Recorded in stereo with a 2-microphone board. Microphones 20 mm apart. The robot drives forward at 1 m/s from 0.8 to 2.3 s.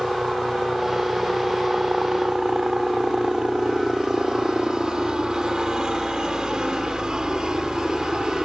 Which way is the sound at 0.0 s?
40° right (ahead or behind).